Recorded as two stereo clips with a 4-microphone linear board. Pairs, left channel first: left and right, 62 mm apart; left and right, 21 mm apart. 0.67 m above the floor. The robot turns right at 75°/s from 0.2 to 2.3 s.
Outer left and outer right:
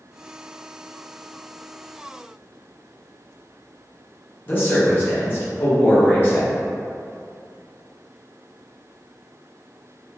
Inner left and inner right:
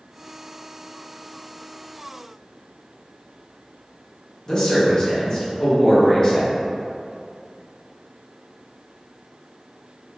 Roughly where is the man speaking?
Left.